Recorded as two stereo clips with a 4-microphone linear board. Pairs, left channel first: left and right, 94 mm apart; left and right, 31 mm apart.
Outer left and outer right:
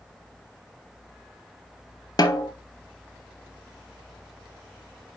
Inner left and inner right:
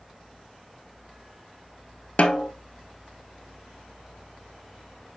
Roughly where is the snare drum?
Left.